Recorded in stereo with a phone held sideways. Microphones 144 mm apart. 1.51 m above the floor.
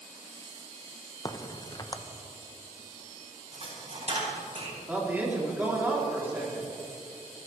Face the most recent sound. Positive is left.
turn(degrees=-10)  # may be behind; listen again after turning